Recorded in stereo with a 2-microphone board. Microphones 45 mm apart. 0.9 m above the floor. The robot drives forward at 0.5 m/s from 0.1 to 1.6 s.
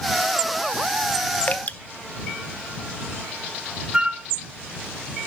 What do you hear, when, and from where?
1.5 s dripping: 40° left (ahead or behind), 0.6 m; by 1.8 s 35° left (ahead or behind), 0.7 m
3.9 s a flute: 20° right (ahead or behind), 1.3 m